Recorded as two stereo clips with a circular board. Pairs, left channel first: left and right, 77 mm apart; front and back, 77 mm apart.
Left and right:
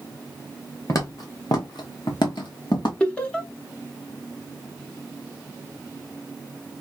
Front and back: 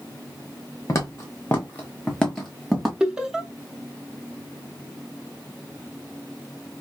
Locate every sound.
0.9 s footsteps: 45° left, 1.3 m; by 2.9 s 90° left, 1.6 m
3.0 s laughter: 120° left, 0.9 m